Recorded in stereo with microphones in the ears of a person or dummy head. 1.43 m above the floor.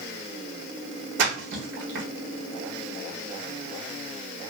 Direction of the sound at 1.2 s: 65° right (ahead or behind).